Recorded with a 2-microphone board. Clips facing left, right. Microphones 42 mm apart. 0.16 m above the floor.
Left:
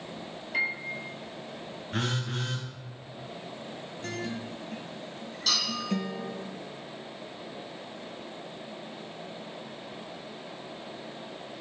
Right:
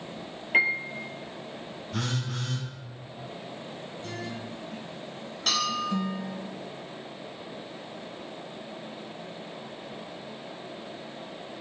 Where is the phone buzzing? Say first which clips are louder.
Left 1 dB; 50° left (ahead or behind), 1.1 m.